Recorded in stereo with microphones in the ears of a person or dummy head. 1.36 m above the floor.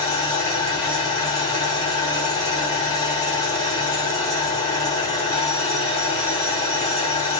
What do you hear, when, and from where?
0.0 s an engine running: 30° left (ahead or behind), 4 m